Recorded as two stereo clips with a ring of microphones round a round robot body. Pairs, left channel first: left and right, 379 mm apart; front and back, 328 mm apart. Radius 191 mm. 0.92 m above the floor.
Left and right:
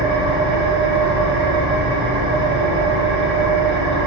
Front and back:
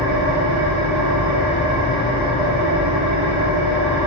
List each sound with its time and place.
0.0 s an engine running: 130° right, 3 m